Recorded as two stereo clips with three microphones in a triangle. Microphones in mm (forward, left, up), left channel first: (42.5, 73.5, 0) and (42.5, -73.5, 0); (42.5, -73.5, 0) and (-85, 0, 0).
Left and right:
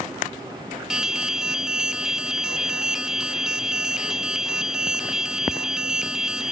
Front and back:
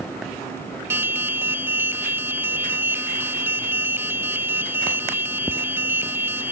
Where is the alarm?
170° right.